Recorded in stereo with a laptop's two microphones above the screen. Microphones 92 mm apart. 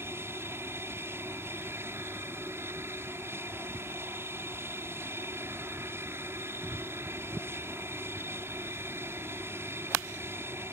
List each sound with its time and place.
0.0 s an aircraft: 25° right (ahead or behind)